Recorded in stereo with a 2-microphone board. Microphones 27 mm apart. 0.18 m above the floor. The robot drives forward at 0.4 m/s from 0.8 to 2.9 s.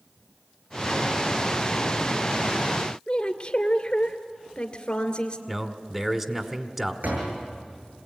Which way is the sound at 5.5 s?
15° right (ahead or behind).